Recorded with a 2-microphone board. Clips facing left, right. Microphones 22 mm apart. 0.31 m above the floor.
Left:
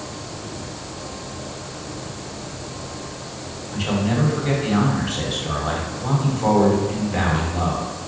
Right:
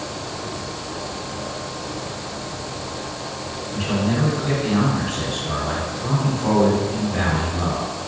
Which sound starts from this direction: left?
A man speaking, at 3.7 s.